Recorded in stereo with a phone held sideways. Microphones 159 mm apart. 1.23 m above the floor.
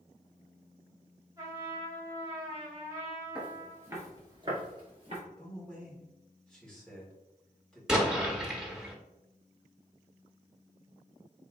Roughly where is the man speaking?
Centre.